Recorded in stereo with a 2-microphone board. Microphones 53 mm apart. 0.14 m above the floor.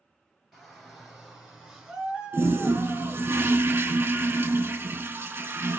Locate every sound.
0.5 s a shout: 5° left (ahead or behind), 2 m; by 3.3 s 25° right (ahead or behind), 1.4 m
2.3 s a toilet flushing: 45° right (ahead or behind), 0.5 m